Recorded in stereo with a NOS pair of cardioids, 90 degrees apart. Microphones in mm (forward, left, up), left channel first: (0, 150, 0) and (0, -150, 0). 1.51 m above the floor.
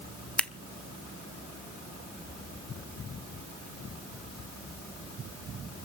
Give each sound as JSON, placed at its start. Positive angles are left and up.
{"t": 0.4, "sound": "scissors", "azimuth_deg": 5, "distance_m": 0.9}